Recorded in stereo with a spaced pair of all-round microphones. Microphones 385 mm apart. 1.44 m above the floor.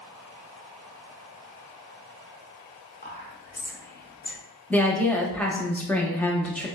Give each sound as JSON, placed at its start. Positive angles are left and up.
{"t": 3.0, "sound": "whispering", "side_deg": 25, "distance_m": 0.8}
{"t": 4.7, "sound": "a woman speaking", "side_deg": 5, "distance_m": 0.7}